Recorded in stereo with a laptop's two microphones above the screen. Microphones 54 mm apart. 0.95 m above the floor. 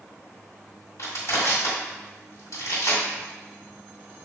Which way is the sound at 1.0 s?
75° left (ahead or behind).